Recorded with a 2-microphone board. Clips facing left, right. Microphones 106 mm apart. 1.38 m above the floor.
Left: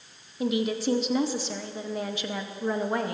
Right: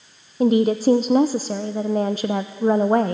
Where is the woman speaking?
45° right (ahead or behind), 0.7 m.